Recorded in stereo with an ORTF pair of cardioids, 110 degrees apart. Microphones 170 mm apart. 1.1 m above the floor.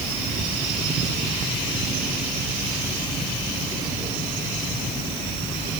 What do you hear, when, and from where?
Only background noise.